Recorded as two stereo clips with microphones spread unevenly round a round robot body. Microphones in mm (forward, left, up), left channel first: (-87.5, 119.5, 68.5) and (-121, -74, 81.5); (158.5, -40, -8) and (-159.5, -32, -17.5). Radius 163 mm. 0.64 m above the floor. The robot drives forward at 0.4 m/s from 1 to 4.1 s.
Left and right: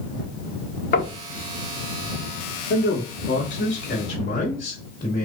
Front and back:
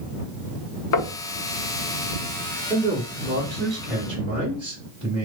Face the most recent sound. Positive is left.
turn(degrees=115)